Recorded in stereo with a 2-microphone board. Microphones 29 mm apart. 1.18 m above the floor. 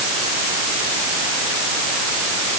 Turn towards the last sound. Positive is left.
No sound to turn to.